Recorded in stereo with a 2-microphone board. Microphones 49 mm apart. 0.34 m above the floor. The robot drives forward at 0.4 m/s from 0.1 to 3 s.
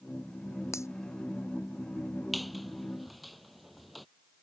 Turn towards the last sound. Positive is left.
turn(degrees=0)  # may be behind; listen again after turning